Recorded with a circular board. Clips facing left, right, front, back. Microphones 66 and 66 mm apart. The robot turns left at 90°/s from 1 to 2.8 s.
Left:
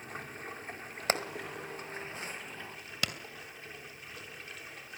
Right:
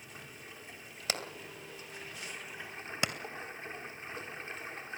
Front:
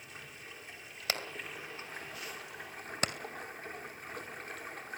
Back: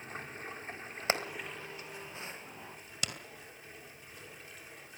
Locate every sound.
0.0 s running water: 130° left, 3.5 m; by 5.0 s 35° right, 3.5 m
1.1 s hammering: 125° left, 2 m; by 3.1 s 30° right, 2 m